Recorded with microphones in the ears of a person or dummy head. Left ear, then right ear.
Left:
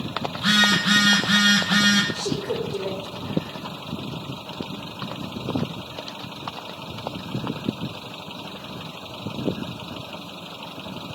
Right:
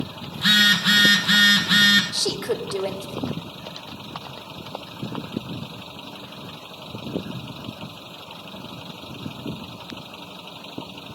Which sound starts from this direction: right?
A woman speaking, at 2.1 s.